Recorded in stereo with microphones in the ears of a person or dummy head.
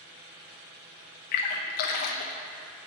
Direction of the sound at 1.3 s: 45° left (ahead or behind).